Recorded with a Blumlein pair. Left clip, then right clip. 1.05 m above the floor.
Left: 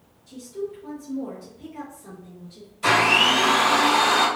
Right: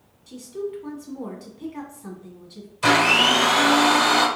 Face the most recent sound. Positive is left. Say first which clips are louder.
# right 1 dB
turn(degrees=-40)